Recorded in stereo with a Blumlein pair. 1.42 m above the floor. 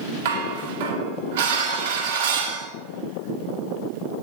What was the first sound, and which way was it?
Dishes clattering, 55° right.